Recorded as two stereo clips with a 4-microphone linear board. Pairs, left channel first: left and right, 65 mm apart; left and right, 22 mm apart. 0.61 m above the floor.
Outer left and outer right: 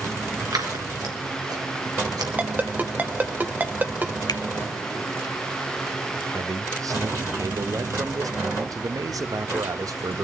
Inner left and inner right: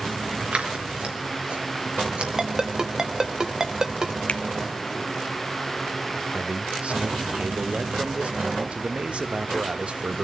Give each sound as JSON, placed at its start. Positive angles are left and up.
{"t": 0.5, "sound": "scissors", "side_deg": -80, "distance_m": 4.0}
{"t": 2.4, "sound": "a ringtone", "side_deg": -30, "distance_m": 1.3}
{"t": 4.3, "sound": "a finger snap", "side_deg": 70, "distance_m": 1.1}
{"t": 6.3, "sound": "a man speaking", "side_deg": -65, "distance_m": 1.6}